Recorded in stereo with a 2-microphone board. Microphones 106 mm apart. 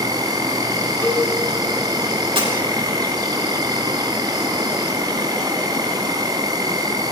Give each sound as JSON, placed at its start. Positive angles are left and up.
{"t": 0.0, "sound": "an insect", "side_deg": -40, "distance_m": 1.5}
{"t": 1.0, "sound": "a cowbell", "side_deg": 20, "distance_m": 2.5}
{"t": 2.4, "sound": "breaking glass", "side_deg": -50, "distance_m": 4.5}